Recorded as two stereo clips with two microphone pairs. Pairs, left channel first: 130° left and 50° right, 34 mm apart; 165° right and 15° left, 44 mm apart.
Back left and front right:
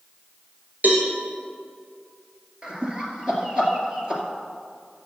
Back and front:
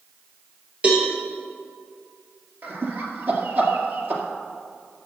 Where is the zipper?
I don't hear a zipper.